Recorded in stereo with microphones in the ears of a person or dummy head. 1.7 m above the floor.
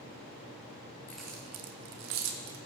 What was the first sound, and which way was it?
Keys jangling, 10° left (ahead or behind).